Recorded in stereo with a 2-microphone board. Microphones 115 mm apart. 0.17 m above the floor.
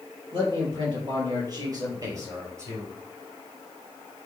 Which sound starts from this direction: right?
A man speaking, at 0.3 s.